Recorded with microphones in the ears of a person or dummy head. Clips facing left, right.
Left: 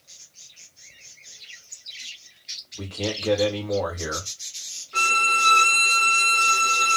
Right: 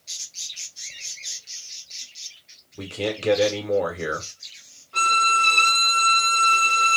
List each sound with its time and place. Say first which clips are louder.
2.8 s a man speaking: right 2 dB; 30° right (ahead or behind), 1.0 m
4.9 s a violin: right 3 dB; 25° left (ahead or behind), 1.2 m